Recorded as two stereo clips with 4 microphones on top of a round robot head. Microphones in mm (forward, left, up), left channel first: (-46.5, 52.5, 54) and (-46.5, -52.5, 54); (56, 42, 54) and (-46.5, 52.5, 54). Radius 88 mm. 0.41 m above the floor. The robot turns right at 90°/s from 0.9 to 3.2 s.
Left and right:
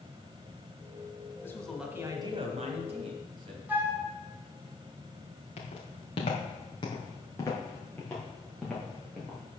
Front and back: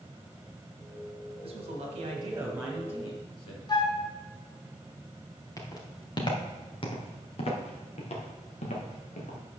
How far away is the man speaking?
About 2.5 m.